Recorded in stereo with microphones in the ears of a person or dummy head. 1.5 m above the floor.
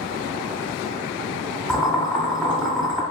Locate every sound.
1.7 s boiling: centre (ahead or behind), 0.9 m